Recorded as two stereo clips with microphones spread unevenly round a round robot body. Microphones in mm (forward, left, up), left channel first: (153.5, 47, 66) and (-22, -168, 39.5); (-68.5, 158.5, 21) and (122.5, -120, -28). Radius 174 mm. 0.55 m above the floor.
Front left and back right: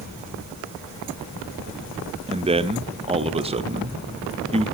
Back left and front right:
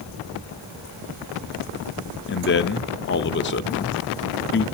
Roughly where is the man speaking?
Behind.